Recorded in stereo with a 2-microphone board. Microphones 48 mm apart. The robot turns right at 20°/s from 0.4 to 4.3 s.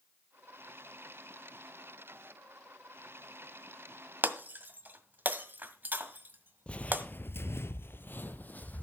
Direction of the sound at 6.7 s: 25° left (ahead or behind).